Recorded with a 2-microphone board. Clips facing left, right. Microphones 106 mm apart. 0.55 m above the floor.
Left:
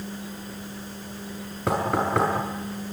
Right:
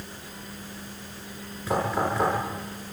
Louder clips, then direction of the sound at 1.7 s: Left 2 dB; 70° left (ahead or behind).